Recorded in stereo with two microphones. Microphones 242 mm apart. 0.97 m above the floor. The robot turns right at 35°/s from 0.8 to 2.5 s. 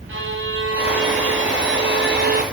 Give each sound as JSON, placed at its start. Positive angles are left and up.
{"t": 0.1, "sound": "a violin", "azimuth_deg": -105, "distance_m": 0.9}